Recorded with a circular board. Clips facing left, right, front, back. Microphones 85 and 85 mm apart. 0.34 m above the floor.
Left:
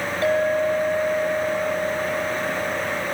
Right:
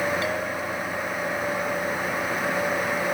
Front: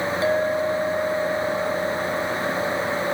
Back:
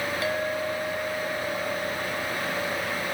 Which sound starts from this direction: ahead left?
A clink, at 0.2 s.